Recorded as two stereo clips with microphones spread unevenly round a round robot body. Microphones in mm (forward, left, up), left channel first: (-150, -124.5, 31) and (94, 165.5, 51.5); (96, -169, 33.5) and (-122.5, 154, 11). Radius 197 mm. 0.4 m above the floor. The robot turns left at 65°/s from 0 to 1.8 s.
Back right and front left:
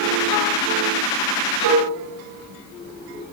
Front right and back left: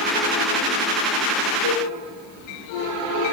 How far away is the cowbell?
About 2.5 m.